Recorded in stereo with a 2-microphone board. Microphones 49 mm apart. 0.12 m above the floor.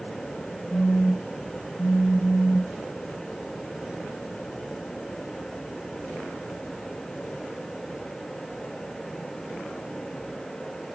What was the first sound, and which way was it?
A phone buzzing, centre (ahead or behind).